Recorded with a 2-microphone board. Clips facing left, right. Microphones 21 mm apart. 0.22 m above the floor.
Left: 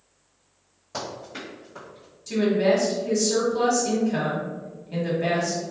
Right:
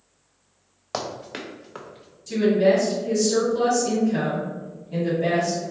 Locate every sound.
0.9 s running footsteps: 70° right (ahead or behind), 1.4 m; by 2.2 s 25° right (ahead or behind), 0.9 m
2.3 s a woman speaking: 25° left (ahead or behind), 1.2 m